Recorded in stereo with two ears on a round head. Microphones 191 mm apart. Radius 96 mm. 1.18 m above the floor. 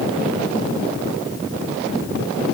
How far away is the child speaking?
I don't hear a child speaking.